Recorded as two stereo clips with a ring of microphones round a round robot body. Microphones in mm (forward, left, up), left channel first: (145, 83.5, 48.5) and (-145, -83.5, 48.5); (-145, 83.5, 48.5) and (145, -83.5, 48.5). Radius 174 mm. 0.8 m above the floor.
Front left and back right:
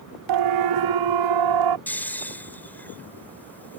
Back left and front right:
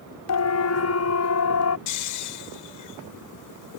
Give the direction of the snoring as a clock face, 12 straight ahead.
8 o'clock.